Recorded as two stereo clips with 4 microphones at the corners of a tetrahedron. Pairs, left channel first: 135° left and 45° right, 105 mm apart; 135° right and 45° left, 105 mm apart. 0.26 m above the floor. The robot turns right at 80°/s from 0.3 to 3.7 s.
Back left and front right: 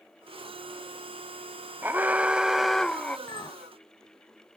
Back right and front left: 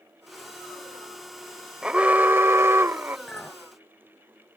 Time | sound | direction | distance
1.8 | an alarm | 25° right | ?
3.3 | a clink | 140° left | ?